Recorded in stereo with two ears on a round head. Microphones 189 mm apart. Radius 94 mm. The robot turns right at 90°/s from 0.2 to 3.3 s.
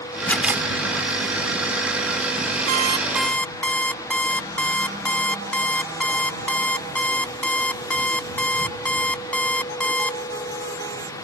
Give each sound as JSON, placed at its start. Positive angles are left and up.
{"t": 0.3, "sound": "a camera shutter", "side_deg": 10}
{"t": 2.7, "sound": "an alarm clock", "azimuth_deg": -45}